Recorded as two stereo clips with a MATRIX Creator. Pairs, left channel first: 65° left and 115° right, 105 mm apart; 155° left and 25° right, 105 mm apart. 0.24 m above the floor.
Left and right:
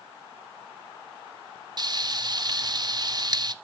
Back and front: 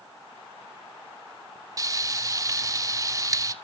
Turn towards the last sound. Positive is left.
turn(degrees=-75)